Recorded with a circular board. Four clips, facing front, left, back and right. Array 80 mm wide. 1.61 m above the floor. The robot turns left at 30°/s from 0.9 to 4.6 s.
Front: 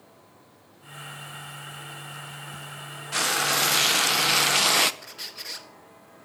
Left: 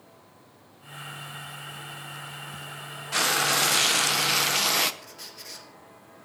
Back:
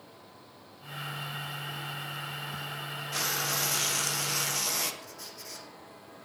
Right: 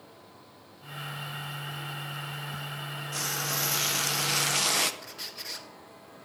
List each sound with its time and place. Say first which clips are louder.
3.1 s frying: left 10 dB, front 8 dB; 55° left, 0.8 m; by 4.9 s 10° left, 0.8 m
5.0 s a squeak: right 2 dB, front 2 dB; 20° right, 1.4 m